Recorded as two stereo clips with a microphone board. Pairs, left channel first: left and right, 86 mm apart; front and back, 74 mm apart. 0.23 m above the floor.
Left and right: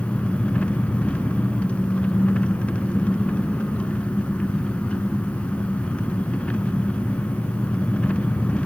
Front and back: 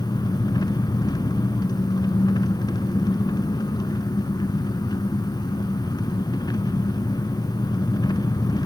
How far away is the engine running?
About 0.8 m.